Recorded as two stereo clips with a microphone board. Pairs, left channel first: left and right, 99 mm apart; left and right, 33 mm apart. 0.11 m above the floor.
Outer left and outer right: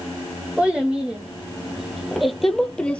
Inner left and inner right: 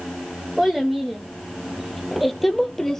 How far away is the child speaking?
About 4 m.